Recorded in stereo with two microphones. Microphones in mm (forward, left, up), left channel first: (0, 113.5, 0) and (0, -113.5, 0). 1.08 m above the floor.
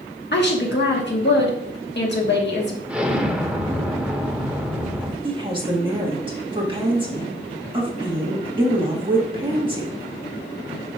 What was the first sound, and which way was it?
A woman speaking, 50° left (ahead or behind).